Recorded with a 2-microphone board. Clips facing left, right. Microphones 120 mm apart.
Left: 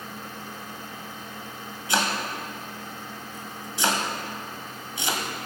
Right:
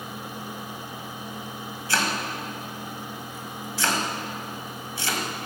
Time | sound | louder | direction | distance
1.9 | chopping | left 1 dB | 20° left (ahead or behind) | 1.6 m